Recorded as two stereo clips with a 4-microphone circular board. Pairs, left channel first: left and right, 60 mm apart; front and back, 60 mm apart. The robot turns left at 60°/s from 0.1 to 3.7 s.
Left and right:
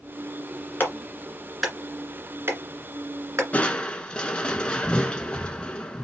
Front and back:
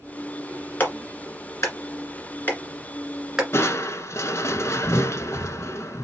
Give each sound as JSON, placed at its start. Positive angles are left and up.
{"t": 0.8, "sound": "a clap", "azimuth_deg": 50, "distance_m": 1.9}
{"t": 3.5, "sound": "crushing", "azimuth_deg": 30, "distance_m": 0.7}